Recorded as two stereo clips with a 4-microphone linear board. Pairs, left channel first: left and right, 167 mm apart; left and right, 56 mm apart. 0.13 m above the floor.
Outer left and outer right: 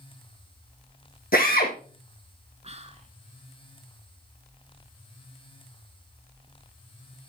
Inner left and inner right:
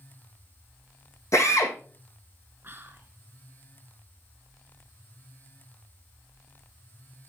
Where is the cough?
I don't hear a cough.